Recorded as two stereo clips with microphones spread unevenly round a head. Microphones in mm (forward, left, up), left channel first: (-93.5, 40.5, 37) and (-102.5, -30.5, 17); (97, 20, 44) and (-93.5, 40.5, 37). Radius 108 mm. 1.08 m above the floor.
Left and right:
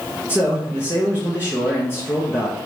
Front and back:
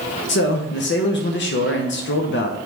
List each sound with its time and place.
0.3 s a man speaking: 10° left, 0.8 m